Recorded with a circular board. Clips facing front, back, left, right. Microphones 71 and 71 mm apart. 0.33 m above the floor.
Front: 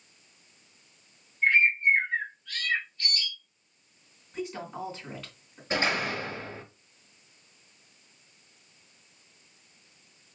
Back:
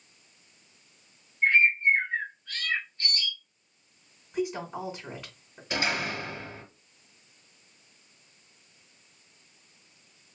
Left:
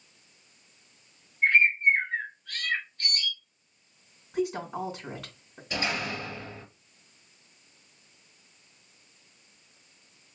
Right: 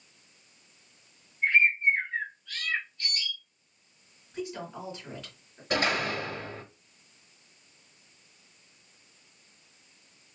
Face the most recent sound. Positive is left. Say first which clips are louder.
# front 2 dB, right 4 dB
turn(degrees=-60)